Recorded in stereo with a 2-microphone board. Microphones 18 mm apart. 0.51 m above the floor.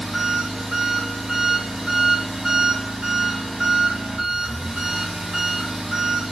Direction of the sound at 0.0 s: 65° right (ahead or behind).